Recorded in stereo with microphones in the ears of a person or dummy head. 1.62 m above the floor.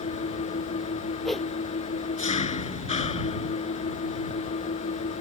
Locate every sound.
0.0 s an engine running: 40° left (ahead or behind)
1.2 s a whoosh: centre (ahead or behind)